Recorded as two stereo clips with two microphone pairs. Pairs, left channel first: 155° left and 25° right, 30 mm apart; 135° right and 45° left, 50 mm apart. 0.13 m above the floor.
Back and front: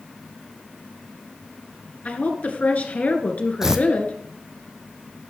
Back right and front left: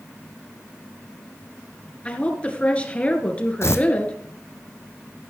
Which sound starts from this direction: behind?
A woman speaking, at 2.0 s.